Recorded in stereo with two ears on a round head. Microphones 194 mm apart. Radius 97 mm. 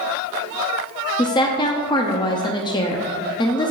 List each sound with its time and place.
1.2 s a woman speaking: 20° left (ahead or behind), 0.6 m